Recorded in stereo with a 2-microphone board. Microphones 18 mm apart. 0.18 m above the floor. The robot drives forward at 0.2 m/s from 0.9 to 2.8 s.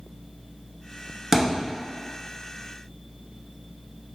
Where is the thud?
15° right (ahead or behind), 0.7 m; by 1.7 s 10° right (ahead or behind), 0.8 m.